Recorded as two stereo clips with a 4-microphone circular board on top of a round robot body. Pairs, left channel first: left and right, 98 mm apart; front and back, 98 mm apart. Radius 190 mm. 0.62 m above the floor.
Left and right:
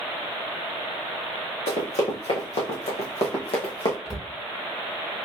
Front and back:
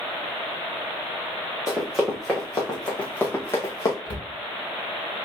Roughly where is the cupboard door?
Ahead.